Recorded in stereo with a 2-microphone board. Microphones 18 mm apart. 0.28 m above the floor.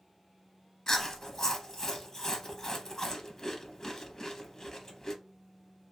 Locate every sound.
0.9 s chewing: 25° left (ahead or behind), 0.6 m